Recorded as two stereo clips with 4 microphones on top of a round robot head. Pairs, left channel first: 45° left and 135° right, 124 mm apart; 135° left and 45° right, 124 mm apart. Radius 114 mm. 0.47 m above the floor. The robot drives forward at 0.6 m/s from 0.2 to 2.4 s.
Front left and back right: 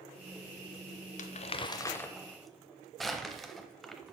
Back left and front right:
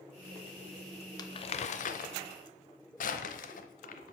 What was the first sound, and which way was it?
Crumpling, 75° left.